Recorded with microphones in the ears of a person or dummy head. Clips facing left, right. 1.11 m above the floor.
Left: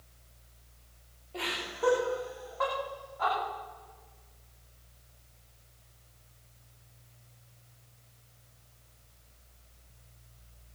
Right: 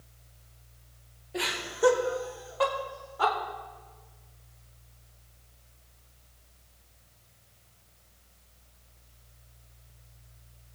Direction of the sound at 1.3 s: 15° right (ahead or behind).